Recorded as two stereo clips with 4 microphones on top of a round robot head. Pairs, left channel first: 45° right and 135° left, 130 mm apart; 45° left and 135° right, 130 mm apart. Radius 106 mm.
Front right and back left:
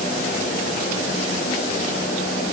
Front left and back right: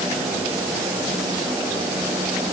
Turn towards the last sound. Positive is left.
No sound to turn to.